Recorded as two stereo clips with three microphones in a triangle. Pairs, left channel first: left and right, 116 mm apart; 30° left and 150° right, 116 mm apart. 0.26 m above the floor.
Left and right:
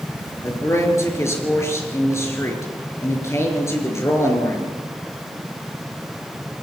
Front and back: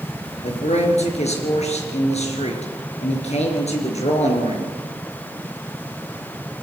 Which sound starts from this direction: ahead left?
A man speaking, at 0.4 s.